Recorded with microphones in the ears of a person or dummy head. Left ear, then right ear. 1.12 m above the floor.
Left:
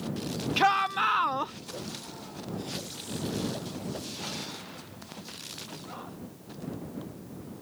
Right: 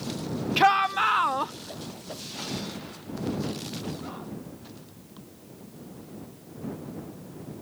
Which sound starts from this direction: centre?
A shout, at 0.6 s.